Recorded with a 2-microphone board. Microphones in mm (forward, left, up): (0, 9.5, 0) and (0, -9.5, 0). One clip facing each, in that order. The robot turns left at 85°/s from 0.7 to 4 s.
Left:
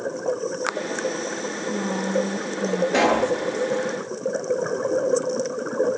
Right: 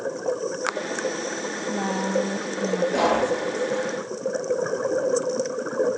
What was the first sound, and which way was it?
A woman speaking, 60° right.